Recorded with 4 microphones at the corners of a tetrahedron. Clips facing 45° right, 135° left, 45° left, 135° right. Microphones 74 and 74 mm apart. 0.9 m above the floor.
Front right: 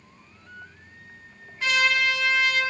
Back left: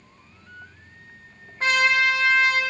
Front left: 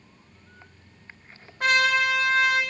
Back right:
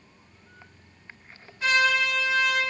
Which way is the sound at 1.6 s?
85° left.